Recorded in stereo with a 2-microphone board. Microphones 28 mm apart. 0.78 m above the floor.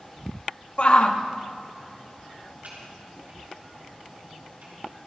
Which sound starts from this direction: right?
Typing on a keyboard, at 2.6 s.